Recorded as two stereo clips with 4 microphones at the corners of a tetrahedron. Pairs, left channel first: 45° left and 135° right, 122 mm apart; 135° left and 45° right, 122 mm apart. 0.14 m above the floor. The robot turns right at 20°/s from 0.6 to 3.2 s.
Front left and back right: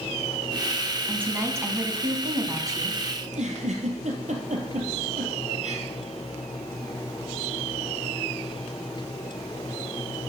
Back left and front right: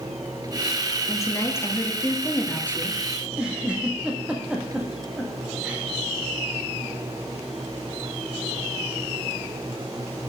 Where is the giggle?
125° right, 1.9 m.